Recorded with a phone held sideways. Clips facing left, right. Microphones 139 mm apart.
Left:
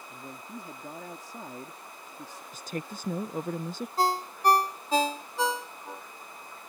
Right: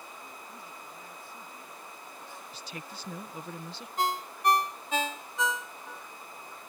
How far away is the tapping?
No tapping in this recording.